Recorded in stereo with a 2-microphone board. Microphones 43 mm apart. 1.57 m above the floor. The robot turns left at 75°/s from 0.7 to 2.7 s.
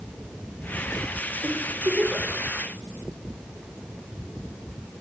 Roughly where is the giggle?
Right.